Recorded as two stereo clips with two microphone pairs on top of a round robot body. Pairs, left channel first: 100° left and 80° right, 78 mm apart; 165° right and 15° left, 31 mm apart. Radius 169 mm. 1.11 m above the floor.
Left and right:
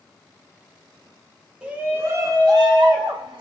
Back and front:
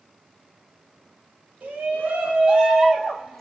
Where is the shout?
5° right, 0.9 m; by 3.4 s 75° right, 1.2 m.